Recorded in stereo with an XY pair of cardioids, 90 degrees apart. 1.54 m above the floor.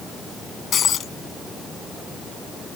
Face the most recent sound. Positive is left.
turn(degrees=60)